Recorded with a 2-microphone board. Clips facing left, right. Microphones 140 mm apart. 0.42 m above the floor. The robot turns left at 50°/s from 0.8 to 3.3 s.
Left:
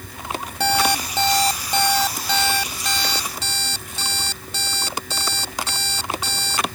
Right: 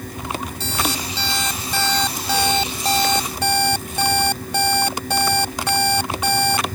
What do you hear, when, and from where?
0.6 s an alarm clock: 65° left; by 6.7 s 60° right